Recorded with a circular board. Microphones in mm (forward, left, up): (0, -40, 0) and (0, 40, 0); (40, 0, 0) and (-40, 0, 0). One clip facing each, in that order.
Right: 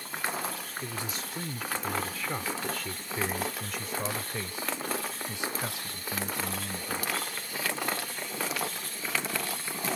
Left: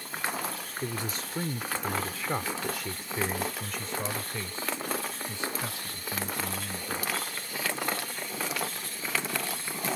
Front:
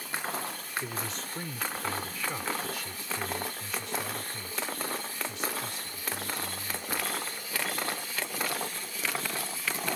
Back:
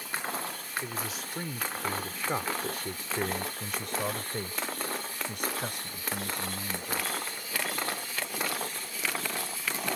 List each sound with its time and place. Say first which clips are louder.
0.8 s a man speaking: left 5 dB, even; 90° left; by 7.1 s 155° right